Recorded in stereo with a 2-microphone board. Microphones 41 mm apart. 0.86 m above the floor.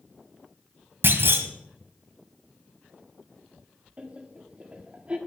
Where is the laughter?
30° right (ahead or behind), 1.5 m.